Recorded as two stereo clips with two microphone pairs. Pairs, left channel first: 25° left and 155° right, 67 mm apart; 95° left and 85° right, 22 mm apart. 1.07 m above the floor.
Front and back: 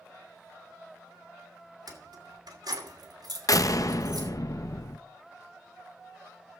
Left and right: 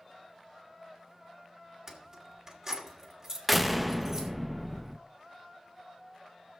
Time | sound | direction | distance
1.9 | keys jangling | 150° right | 2.5 m
3.5 | a door slam | 5° right | 0.8 m